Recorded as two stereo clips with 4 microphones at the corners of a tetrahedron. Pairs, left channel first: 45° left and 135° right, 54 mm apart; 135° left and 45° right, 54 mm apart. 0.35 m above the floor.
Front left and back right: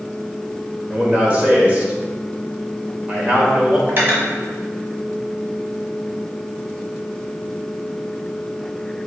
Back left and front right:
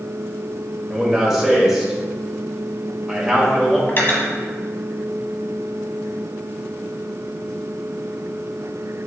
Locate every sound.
0.9 s a man speaking: 115° right, 1.2 m
3.9 s cutlery clinking: 175° left, 1.1 m